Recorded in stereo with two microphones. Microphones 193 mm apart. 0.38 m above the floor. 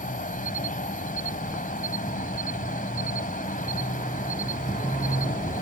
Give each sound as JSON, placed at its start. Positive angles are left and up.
{"t": 0.0, "sound": "an insect", "side_deg": 45}